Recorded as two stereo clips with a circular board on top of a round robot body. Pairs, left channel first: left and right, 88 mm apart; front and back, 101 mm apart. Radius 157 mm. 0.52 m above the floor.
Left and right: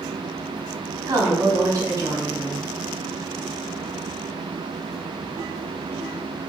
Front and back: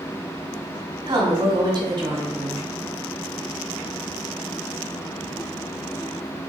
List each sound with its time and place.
1.1 s a woman speaking: 145° right, 1.7 m